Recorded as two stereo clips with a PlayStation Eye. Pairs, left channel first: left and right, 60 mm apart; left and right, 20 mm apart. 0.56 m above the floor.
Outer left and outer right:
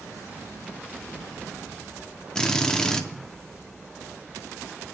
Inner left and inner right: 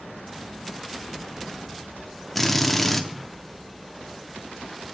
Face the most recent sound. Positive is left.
turn(degrees=10)  # may be behind; listen again after turning